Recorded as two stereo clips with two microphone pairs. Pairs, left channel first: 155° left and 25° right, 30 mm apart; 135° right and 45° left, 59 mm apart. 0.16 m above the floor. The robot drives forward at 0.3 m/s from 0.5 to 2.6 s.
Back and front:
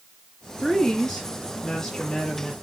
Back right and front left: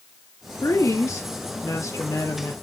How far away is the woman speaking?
About 4.5 m.